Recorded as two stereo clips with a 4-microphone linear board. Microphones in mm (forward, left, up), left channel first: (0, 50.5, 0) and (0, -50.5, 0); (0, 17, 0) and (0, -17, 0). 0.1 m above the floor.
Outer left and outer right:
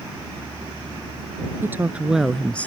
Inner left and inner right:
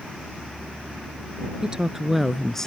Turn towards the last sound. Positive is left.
turn(degrees=15)  # may be behind; listen again after turning